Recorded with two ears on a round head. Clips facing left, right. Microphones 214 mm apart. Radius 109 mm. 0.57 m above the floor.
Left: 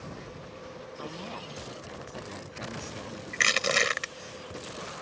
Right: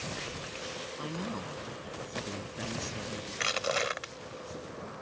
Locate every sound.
1.0 s a woman speaking: 30° right (ahead or behind); by 3.2 s 10° right (ahead or behind)
3.3 s crushing: 35° left (ahead or behind)